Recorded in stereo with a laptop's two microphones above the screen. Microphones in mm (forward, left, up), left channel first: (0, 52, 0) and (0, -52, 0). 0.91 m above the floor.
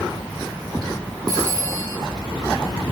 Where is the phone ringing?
35° right (ahead or behind), 6.5 m.